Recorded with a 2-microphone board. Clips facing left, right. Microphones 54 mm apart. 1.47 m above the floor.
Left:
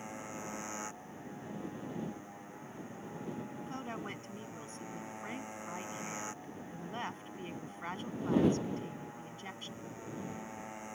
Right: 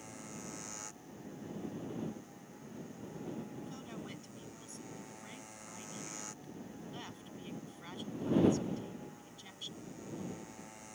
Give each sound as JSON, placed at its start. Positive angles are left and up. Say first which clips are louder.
{"t": 0.0, "sound": "a motorcycle", "louder": "left 5 dB", "side_deg": 30}
{"t": 3.7, "sound": "a woman speaking", "louder": "left 5 dB", "side_deg": 40}